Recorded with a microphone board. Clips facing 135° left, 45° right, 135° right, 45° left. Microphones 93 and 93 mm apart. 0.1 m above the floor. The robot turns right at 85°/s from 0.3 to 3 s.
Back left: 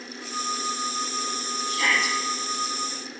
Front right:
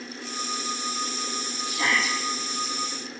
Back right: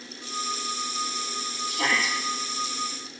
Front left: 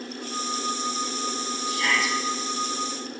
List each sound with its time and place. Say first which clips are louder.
1.7 s a shout: back left 1 dB, front left 1 dB; 125° right, 5.5 m; by 2.2 s 85° right, 5.5 m